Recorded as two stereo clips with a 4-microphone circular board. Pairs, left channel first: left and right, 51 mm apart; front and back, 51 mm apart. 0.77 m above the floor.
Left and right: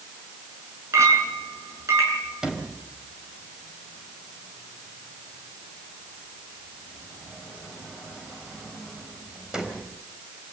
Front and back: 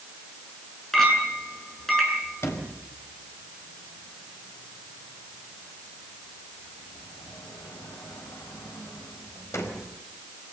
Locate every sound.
0.9 s a clink: 80° right, 7.5 m
2.4 s a sliding door: 15° right, 4 m